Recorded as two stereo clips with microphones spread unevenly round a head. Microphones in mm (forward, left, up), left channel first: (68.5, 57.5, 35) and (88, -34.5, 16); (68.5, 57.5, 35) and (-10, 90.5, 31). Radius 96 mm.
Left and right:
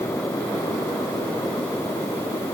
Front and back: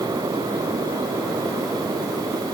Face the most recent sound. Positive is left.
No sound to turn to.